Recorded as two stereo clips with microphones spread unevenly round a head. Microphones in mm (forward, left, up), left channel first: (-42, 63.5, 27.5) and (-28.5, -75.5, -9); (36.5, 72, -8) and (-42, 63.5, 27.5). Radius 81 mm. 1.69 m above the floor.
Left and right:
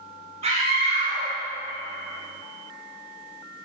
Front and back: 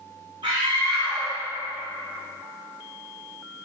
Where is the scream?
130° right, 1.4 m; by 3.5 s 55° right, 3 m.